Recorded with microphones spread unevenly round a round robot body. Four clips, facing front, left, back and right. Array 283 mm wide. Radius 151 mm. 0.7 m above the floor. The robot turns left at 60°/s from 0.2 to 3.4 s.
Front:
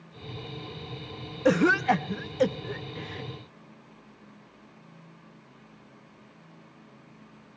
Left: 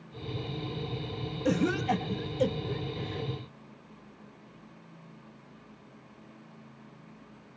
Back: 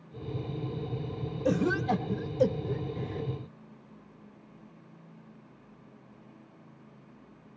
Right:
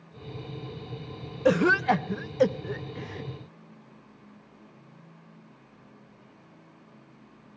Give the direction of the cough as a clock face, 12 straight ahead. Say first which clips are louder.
Right 6 dB, front 6 dB; 2 o'clock.